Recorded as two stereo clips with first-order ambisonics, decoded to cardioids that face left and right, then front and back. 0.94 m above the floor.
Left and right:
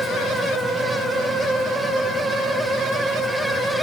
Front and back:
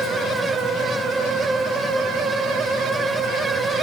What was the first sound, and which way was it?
Only background noise.